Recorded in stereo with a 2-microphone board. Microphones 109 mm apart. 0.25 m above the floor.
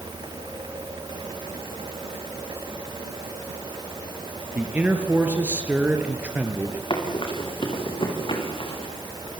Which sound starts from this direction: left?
Running footsteps, at 6.9 s.